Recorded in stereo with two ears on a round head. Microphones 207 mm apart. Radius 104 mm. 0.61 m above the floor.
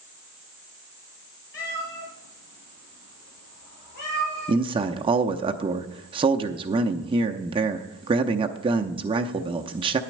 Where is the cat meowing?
55° left (ahead or behind), 4 m; by 4.7 s 45° left (ahead or behind), 6.5 m.